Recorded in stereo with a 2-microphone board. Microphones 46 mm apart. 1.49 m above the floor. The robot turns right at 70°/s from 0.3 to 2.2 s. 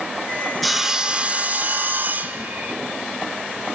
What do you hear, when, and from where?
0.6 s sawing: straight behind, 1.4 m; by 2.8 s 70° right, 1.4 m